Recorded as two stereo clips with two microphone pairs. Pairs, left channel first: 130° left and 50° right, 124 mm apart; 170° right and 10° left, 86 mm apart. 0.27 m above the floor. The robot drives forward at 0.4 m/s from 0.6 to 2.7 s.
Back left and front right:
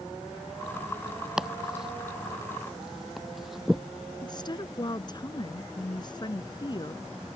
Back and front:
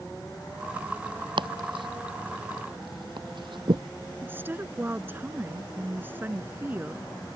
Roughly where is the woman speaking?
Left.